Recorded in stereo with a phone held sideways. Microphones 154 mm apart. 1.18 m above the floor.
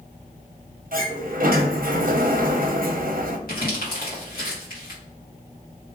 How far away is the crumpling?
About 1.5 m.